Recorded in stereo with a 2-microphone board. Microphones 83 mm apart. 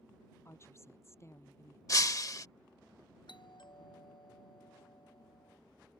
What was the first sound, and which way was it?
A woman speaking, 30° left (ahead or behind).